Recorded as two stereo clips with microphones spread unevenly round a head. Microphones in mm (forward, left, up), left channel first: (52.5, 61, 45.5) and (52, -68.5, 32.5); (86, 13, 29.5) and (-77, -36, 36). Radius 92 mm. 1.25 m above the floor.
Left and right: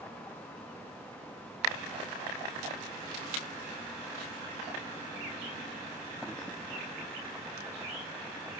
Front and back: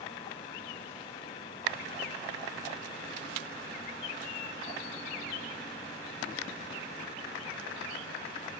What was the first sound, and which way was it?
Only background noise.